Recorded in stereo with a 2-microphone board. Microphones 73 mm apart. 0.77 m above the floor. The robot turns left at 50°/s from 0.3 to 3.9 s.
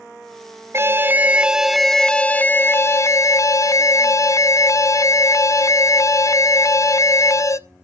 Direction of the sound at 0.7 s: 130° right.